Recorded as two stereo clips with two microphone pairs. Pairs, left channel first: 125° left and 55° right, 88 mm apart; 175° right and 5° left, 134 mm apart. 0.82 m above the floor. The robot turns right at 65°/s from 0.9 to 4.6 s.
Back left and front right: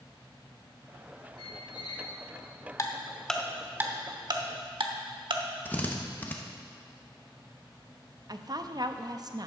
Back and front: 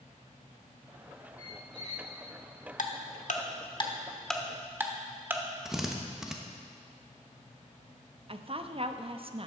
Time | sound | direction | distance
1.4 | a squeak | 120° left | 1.5 m
2.8 | ticking | 175° left | 1.0 m
5.7 | a drill | 85° left | 1.0 m
8.3 | a woman speaking | 30° right | 0.6 m